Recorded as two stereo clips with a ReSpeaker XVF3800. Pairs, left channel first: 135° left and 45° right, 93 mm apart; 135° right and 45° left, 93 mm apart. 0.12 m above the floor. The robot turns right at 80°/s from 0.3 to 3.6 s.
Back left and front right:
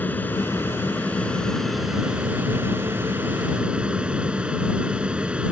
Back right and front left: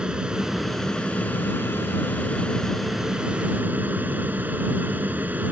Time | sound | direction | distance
0.0 | an aircraft | 110° left | ?